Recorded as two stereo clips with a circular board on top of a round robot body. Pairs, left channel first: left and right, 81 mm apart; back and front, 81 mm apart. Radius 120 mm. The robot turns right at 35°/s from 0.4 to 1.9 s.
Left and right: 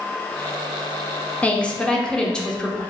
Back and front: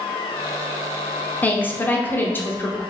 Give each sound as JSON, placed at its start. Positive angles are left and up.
{"t": 1.4, "sound": "a woman speaking", "azimuth_deg": 140, "distance_m": 0.9}